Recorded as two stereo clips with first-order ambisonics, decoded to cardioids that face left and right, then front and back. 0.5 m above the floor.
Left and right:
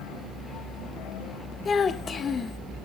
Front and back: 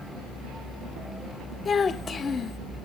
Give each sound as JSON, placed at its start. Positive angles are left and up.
{"t": 1.6, "sound": "a child speaking", "azimuth_deg": 45, "distance_m": 0.6}